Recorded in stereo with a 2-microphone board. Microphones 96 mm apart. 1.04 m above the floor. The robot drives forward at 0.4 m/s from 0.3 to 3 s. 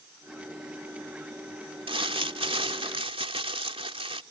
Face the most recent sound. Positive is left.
turn(degrees=-80)